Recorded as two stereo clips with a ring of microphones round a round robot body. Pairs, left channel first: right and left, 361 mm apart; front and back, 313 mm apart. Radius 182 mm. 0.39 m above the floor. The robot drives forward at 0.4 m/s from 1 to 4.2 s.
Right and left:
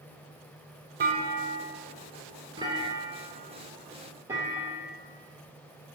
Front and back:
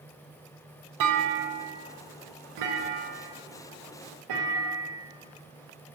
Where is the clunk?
155° left, 0.6 m; by 6.0 s 170° left, 1.8 m.